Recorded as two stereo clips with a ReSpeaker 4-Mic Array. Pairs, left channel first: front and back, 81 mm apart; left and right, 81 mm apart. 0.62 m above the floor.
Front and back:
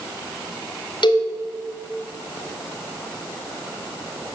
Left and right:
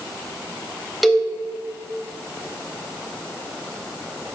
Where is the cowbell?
Straight ahead, 3.5 m.